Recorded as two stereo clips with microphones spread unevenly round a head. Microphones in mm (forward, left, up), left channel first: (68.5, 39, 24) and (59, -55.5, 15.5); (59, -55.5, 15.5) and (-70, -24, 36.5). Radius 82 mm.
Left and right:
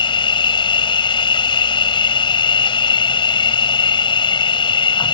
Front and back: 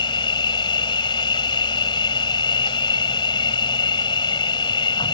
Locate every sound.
0.0 s an insect: 50° left